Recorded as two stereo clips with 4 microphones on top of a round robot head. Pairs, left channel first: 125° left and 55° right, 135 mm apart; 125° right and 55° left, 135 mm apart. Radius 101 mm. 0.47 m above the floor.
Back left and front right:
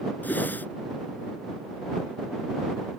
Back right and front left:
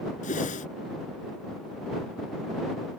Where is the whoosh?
155° right.